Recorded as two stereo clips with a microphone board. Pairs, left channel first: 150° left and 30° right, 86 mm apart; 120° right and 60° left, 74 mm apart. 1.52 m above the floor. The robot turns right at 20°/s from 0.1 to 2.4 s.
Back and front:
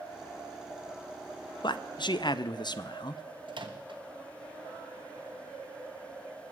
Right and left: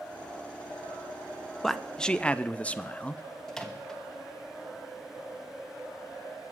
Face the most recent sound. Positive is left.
turn(degrees=-35)